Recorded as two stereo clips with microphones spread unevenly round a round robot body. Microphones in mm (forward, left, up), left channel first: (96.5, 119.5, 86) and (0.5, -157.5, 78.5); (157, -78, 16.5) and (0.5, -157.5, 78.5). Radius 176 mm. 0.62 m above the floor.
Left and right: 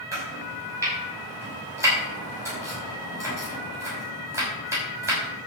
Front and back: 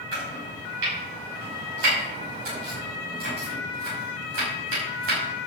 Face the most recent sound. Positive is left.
turn(degrees=170)